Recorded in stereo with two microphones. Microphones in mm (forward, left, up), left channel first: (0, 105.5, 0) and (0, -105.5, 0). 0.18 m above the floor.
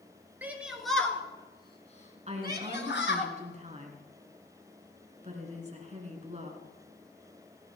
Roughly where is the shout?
Centre.